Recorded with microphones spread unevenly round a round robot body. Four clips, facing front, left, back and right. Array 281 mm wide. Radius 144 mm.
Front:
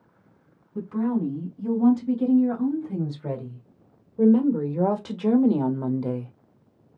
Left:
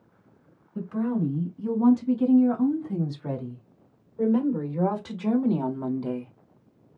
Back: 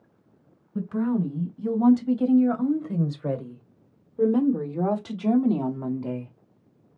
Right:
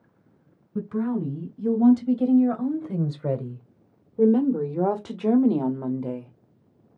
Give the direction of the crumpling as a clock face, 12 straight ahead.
No crumpling in this recording.